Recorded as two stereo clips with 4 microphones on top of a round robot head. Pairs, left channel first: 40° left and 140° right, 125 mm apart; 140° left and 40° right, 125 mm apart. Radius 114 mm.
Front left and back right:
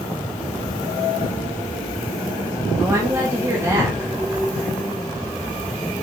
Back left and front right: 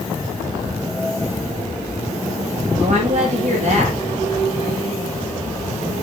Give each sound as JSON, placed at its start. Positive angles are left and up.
{"t": 2.8, "sound": "a woman speaking", "azimuth_deg": -70, "distance_m": 3.0}